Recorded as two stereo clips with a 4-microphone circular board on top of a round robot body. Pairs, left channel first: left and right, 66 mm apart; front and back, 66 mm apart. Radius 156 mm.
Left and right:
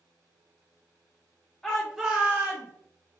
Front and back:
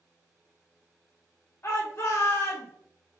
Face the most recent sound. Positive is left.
turn(degrees=-45)